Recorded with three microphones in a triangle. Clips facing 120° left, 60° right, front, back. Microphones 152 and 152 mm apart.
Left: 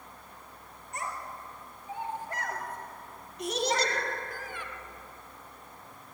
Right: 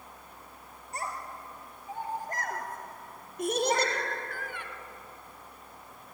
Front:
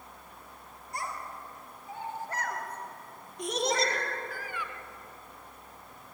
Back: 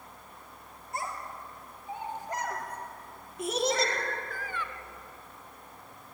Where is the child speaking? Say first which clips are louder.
Even, back 1 dB; 115° right, 5 m; by 4.7 s 75° right, 2.5 m.